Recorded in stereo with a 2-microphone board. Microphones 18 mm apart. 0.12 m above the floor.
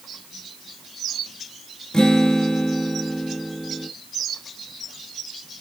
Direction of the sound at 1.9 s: 50° left (ahead or behind).